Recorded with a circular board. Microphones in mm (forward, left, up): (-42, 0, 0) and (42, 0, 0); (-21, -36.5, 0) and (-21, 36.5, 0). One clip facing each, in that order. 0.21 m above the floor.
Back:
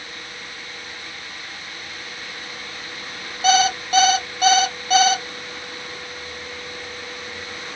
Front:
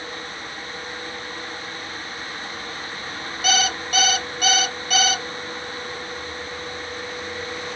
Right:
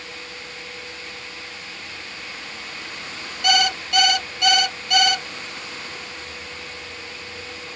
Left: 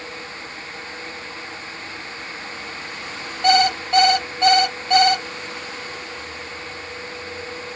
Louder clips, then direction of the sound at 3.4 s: Back 6 dB, left 5 dB; 135° left.